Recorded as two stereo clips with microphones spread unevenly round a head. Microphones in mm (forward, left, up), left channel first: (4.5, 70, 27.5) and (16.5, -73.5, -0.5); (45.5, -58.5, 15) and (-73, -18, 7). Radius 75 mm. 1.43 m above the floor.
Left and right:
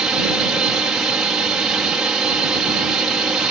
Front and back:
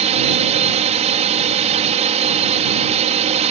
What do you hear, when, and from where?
0.0 s a drone: 170° right